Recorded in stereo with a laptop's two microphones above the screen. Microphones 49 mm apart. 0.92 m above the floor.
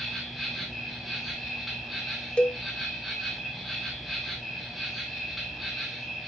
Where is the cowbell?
20° left (ahead or behind), 0.7 m.